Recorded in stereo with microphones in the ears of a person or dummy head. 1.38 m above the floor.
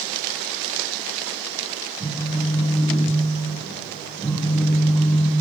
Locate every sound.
2.0 s a phone buzzing: 5° left (ahead or behind), 1.0 m